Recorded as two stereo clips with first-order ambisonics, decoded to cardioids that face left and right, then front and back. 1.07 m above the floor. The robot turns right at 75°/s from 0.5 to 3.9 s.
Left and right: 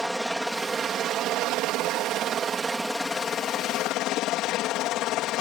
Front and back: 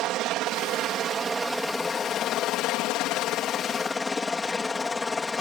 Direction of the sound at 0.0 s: Straight behind.